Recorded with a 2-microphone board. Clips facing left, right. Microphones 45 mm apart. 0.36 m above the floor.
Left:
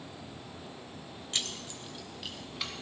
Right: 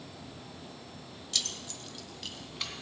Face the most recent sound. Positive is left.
turn(degrees=5)  # may be behind; listen again after turning